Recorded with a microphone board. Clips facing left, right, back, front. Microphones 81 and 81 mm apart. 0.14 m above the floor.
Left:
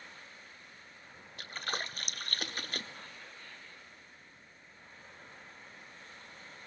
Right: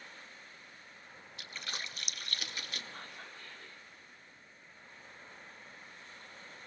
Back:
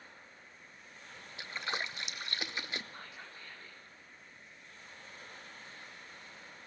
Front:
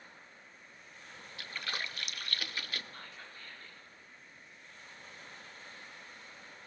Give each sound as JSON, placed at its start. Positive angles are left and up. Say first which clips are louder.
{"t": 1.4, "sound": "a splash", "louder": "left 6 dB, back 2 dB", "azimuth_deg": 120, "distance_m": 0.8}
{"t": 2.9, "sound": "whispering", "louder": "right 2 dB, back 1 dB", "azimuth_deg": -110, "distance_m": 7.0}